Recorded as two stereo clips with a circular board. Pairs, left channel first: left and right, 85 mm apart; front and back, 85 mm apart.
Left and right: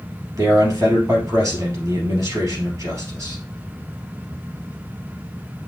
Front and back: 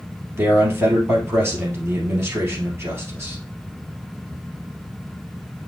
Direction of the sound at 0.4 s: 125° right.